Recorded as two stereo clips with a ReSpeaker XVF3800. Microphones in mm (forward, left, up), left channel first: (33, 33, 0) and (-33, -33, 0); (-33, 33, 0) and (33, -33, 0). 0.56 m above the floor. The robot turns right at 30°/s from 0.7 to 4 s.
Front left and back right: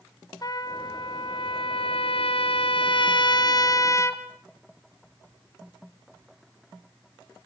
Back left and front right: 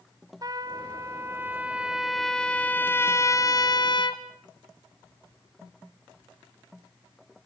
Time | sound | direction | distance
0.4 | a trumpet | straight ahead | 1.8 m